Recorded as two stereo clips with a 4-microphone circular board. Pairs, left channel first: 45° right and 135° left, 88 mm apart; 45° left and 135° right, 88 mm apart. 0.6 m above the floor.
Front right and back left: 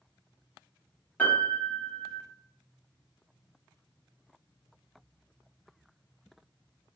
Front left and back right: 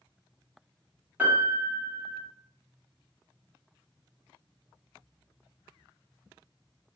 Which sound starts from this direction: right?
A piano, at 1.2 s.